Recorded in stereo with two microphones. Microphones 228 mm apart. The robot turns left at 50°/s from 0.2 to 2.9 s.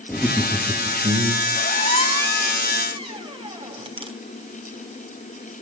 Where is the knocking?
No knocking in this recording.